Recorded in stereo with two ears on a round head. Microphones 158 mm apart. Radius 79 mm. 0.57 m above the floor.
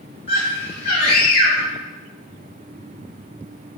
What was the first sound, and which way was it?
A scream, 30° left (ahead or behind).